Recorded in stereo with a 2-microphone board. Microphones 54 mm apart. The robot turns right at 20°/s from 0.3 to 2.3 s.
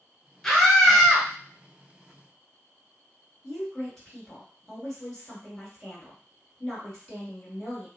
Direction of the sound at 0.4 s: 10° left (ahead or behind).